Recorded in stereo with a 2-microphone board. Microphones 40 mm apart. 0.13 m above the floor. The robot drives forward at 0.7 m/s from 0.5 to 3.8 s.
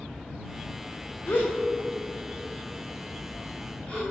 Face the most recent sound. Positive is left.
turn(degrees=30)  # may be behind; listen again after turning